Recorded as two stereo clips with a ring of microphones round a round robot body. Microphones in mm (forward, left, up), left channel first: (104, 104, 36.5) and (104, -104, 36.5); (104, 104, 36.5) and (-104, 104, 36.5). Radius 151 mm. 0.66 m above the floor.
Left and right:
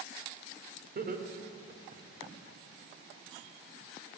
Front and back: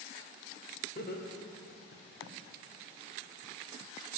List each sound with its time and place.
0.9 s laughter: 55° right, 2 m; by 2.3 s 30° right, 2.0 m